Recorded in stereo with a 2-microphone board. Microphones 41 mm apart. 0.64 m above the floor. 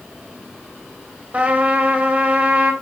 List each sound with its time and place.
1.3 s a trumpet: 35° right (ahead or behind), 2 m